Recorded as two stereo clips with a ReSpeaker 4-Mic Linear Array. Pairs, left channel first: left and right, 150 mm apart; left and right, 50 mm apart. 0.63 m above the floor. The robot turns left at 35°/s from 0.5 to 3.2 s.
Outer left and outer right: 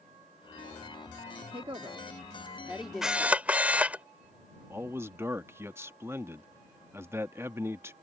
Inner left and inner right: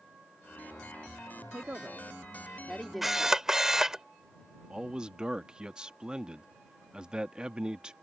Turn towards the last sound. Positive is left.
turn(degrees=-15)  # may be behind; listen again after turning